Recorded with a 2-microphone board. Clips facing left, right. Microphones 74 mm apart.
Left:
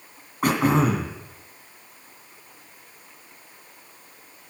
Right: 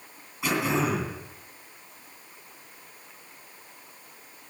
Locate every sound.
0.4 s throat clearing: 45° left (ahead or behind), 2.5 m